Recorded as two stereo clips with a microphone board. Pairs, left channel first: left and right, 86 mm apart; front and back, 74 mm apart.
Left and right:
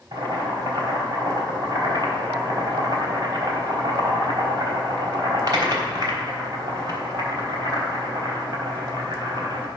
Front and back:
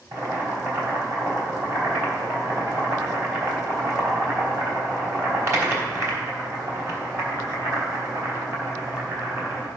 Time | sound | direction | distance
0.1 | boiling | 135° right | 3.5 m